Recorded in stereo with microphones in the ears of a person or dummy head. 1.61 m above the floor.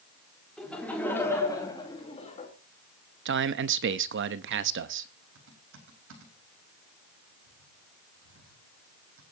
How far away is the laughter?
About 3.5 m.